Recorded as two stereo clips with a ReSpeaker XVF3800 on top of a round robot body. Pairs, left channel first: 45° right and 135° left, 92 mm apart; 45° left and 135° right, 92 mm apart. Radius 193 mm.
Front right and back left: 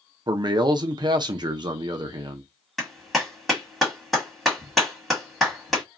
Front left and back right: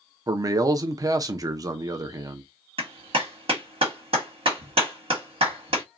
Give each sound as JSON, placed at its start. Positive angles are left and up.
{"t": 0.3, "sound": "a man speaking", "azimuth_deg": 175, "distance_m": 0.6}
{"t": 2.8, "sound": "a clap", "azimuth_deg": -135, "distance_m": 1.5}